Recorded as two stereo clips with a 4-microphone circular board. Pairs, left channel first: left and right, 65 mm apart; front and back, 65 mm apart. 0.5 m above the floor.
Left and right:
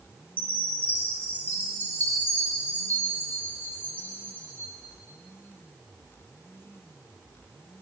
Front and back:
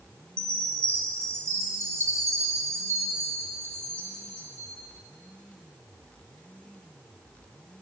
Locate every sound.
0.4 s a chime: 145° left, 1.4 m